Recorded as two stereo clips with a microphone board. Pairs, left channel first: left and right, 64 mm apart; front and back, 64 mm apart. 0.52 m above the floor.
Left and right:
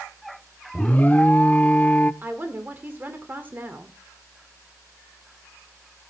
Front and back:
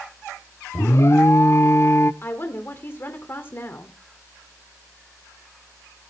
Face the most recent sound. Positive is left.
turn(degrees=-40)